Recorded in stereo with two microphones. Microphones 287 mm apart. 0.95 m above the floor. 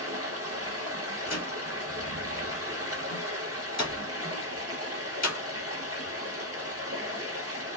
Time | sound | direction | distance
0.0 | running water | 60° right (ahead or behind) | 1.6 m
1.3 | a door slam | 75° left (ahead or behind) | 1.3 m